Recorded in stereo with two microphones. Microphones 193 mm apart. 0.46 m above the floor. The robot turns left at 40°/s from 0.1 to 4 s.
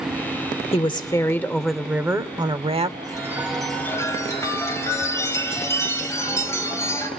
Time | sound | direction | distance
0.7 | a woman speaking | 40° left | 1.0 m
3.0 | a chime | 160° right | 3 m